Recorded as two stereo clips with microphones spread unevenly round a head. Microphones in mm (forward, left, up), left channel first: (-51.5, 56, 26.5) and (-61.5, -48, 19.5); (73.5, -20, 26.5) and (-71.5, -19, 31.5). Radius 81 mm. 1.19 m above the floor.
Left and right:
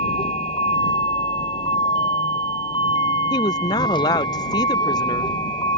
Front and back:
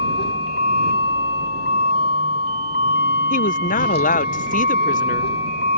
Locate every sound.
0.0 s a vehicle: 25° left; by 5.8 s 20° left
3.3 s a woman speaking: 25° left